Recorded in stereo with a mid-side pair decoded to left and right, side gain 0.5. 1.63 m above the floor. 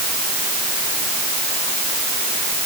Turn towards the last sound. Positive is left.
No sound to turn to.